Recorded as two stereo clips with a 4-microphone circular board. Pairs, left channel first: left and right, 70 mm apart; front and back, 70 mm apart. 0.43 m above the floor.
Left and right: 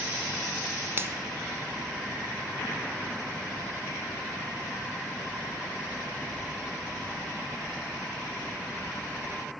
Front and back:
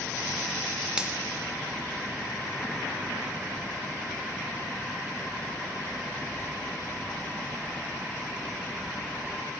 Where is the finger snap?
110° right, 0.7 m.